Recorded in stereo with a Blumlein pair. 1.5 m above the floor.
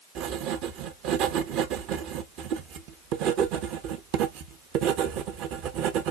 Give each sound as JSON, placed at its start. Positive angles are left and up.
{"t": 0.1, "sound": "writing", "azimuth_deg": -40, "distance_m": 0.7}